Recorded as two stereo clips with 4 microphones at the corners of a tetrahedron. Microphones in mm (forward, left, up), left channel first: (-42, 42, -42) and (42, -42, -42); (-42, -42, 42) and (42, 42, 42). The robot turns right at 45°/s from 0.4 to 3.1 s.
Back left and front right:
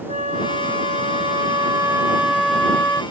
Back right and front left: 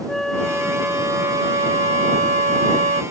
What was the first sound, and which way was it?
A flute, 50° right.